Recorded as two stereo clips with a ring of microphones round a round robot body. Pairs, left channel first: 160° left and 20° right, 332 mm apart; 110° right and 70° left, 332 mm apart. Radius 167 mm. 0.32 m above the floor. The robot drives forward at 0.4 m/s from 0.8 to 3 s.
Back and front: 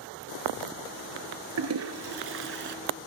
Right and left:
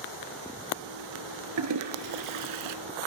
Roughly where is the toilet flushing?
Ahead left.